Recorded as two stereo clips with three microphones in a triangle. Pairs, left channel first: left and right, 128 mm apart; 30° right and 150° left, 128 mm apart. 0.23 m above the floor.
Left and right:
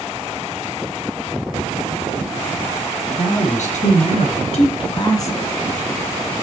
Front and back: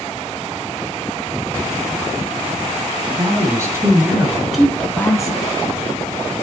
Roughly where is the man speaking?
Left.